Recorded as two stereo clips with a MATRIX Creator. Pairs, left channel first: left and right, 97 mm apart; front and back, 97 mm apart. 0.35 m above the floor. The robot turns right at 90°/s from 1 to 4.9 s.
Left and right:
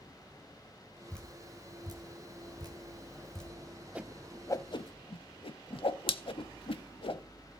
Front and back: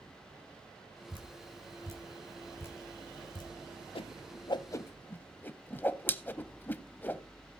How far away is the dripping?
About 2.5 m.